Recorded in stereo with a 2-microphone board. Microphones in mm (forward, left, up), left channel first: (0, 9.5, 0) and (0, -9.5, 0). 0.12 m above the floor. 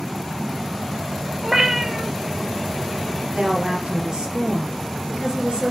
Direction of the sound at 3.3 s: 60° right (ahead or behind).